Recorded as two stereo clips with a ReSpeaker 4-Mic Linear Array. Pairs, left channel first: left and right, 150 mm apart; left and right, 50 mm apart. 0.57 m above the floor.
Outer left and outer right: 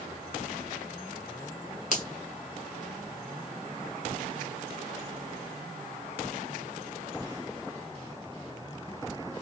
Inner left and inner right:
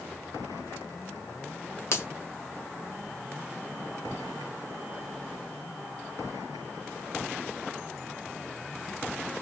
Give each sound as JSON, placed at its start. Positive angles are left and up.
{"t": 1.9, "sound": "a finger snap", "side_deg": 55, "distance_m": 1.6}